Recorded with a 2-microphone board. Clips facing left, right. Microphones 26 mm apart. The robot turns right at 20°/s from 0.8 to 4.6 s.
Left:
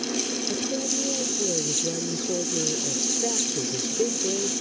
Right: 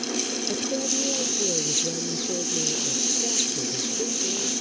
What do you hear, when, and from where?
0.5 s a woman speaking: 10° right; by 4.5 s 65° left